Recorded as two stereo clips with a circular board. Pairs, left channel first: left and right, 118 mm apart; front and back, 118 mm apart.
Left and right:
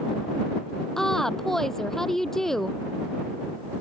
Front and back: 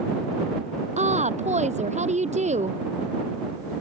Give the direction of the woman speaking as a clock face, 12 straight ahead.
6 o'clock.